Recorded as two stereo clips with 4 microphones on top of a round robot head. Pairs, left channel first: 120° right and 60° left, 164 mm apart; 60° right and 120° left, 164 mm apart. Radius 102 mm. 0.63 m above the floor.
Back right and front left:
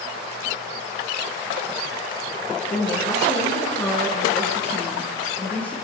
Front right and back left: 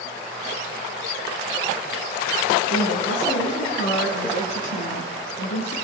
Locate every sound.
2.7 s a woman speaking: 55° right, 7.5 m; by 5.8 s 40° right, 8.5 m